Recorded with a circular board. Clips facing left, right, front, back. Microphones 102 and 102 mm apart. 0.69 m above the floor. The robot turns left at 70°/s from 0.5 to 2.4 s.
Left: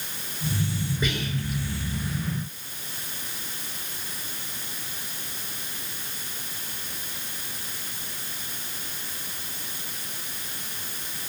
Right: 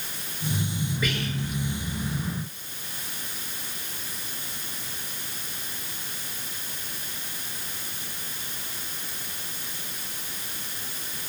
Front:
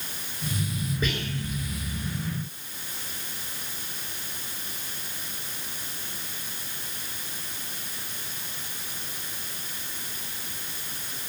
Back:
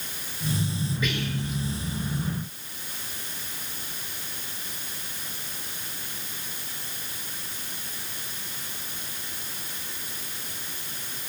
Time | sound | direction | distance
1.0 | whispering | 35° left | 1.4 m